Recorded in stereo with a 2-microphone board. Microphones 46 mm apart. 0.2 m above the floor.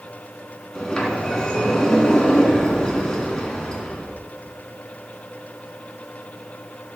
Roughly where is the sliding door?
Centre.